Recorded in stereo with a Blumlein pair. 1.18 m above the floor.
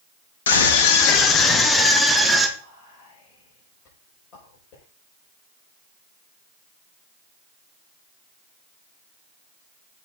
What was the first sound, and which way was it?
A scream, 60° left.